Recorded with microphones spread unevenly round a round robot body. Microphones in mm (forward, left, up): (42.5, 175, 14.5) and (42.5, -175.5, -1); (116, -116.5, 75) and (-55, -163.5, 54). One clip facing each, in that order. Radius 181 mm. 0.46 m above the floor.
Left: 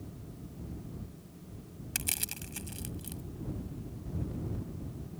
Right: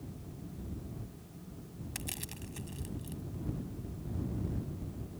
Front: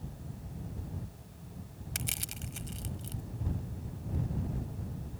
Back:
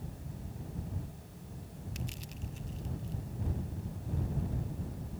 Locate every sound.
1.9 s crushing: 35° left